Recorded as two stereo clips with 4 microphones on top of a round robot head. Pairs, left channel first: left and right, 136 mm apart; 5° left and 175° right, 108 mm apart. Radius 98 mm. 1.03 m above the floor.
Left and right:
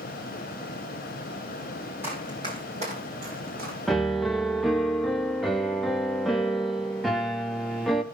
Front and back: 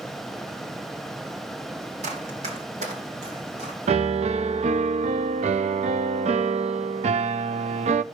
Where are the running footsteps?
170° right, 2.5 m; by 3.8 s 125° right, 4 m.